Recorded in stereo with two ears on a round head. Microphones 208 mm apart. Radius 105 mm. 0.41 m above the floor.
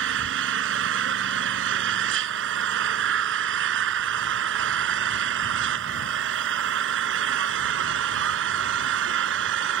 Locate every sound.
0.0 s an engine running: 50° right (ahead or behind)